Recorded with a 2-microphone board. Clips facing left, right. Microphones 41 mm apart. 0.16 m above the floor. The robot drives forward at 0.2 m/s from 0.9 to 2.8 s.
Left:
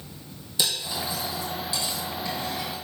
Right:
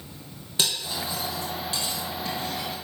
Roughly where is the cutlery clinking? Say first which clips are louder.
Even; right.